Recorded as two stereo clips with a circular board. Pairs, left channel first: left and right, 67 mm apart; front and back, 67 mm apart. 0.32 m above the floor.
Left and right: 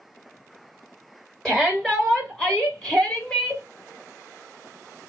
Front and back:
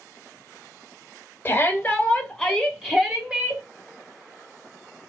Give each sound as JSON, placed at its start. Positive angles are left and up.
{"t": 1.4, "sound": "a shout", "azimuth_deg": 15, "distance_m": 1.6}